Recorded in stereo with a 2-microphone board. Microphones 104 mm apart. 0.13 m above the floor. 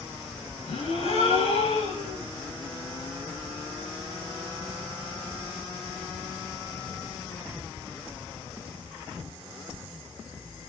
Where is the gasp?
85° left, 5.5 m.